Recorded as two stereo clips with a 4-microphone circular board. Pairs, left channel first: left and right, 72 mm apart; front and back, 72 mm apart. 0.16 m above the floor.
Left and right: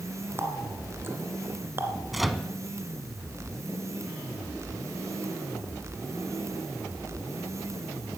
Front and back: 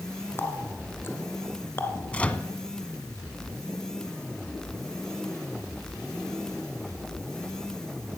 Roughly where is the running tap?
Ahead right.